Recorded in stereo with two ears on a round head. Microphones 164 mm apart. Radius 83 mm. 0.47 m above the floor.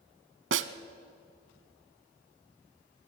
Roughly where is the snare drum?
Right.